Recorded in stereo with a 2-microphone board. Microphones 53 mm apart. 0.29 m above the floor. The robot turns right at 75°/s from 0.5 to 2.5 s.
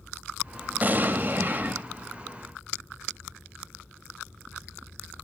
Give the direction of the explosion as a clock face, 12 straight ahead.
4 o'clock.